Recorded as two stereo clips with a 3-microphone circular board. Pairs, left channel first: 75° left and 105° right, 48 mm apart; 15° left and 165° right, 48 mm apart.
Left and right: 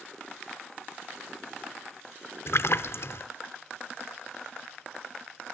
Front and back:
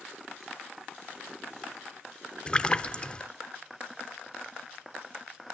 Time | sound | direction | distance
2.5 | a splash | 80° left | 0.5 m